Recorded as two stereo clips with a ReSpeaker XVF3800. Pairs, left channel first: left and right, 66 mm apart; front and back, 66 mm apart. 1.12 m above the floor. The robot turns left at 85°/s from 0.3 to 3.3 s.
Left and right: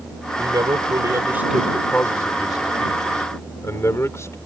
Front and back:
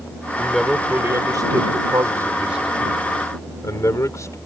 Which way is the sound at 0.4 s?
70° right.